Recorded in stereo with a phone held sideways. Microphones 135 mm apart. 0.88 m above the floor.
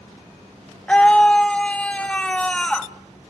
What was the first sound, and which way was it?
A scream, 10° left (ahead or behind).